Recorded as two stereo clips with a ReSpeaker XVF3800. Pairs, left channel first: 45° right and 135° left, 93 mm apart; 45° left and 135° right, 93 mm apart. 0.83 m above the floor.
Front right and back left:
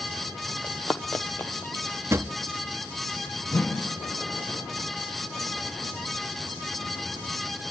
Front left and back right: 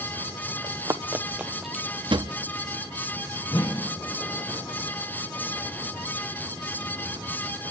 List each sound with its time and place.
0.6 s running footsteps: 140° right, 1.1 m; by 1.9 s 35° right, 0.9 m
2.1 s a drawer: 165° right, 0.7 m
3.5 s a whoosh: 20° left, 1.1 m